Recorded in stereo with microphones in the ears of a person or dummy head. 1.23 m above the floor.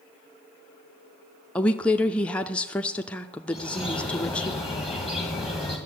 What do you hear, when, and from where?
1.6 s a woman speaking: 10° left (ahead or behind), 0.5 m
3.5 s a bird: 10° right (ahead or behind), 1.4 m